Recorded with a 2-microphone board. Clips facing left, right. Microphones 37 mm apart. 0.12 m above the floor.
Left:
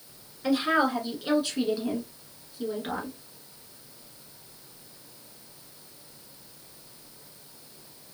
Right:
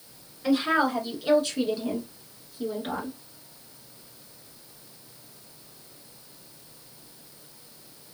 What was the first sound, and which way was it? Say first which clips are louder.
A woman speaking: right 1 dB; 5° left (ahead or behind).